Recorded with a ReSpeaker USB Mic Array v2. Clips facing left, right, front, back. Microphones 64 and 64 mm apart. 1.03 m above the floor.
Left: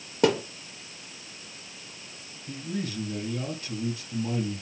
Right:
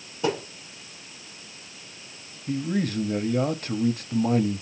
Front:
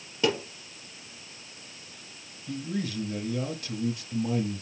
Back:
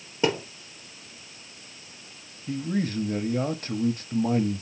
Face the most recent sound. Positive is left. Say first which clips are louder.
# right 7 dB, back 5 dB
turn(degrees=-130)